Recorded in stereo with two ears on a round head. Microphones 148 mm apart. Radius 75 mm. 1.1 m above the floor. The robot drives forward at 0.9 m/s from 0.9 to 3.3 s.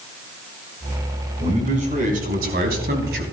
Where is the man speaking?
45° right (ahead or behind), 4 m; by 3.2 s 65° right (ahead or behind), 3 m.